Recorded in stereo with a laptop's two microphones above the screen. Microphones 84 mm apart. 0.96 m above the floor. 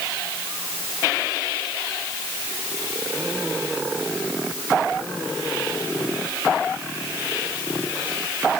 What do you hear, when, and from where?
Only background noise.